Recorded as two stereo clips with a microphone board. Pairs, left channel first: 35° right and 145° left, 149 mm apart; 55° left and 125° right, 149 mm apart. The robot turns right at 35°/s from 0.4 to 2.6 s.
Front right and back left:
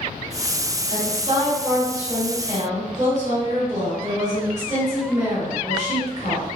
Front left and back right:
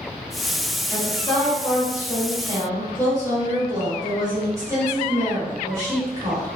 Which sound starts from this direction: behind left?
A woman speaking, at 0.9 s.